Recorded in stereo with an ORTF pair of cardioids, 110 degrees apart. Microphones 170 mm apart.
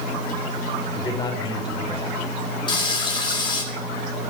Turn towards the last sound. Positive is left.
turn(degrees=25)